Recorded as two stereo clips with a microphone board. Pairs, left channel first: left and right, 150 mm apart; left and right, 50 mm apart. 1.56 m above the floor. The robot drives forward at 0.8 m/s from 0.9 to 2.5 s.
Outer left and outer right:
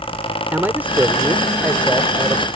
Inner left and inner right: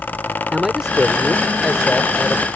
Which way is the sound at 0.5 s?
10° right (ahead or behind).